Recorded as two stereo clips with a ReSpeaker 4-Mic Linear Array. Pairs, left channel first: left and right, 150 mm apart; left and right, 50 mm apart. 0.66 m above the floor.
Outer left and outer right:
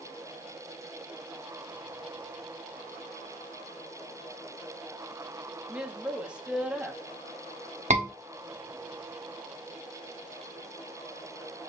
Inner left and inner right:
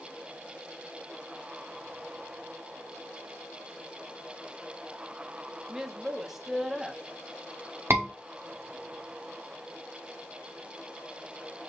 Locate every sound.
5.7 s a woman speaking: 5° right (ahead or behind), 0.7 m
7.9 s a scream: 50° right (ahead or behind), 1.1 m